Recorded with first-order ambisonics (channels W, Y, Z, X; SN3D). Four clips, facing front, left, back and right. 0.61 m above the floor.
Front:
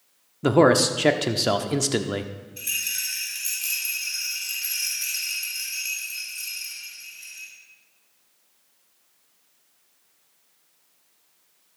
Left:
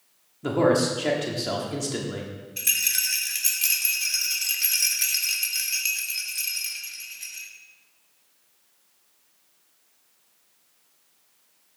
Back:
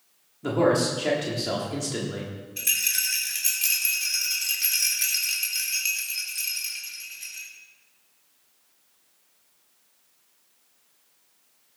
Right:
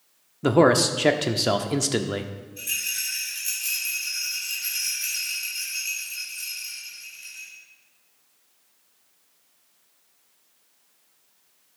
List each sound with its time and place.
0.4 s a man speaking: 35° right, 1.0 m
2.6 s a rattle: 120° left, 2 m